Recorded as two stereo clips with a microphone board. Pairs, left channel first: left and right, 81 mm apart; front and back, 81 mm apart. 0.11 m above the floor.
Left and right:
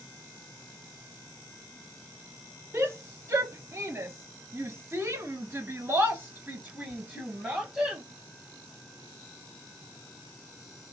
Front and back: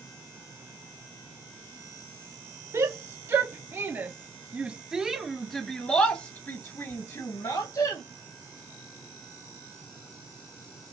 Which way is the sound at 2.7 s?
140° right.